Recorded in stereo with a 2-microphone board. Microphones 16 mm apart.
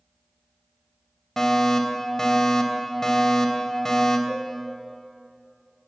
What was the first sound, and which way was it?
A fire alarm, 30° left (ahead or behind).